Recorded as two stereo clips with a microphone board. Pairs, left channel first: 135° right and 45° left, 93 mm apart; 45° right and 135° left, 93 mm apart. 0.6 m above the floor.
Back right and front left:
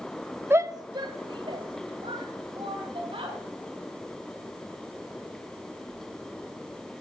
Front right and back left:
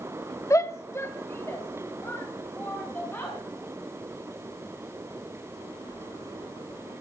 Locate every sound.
0.5 s a shout: 10° right, 0.7 m; by 3.4 s 25° left, 4.5 m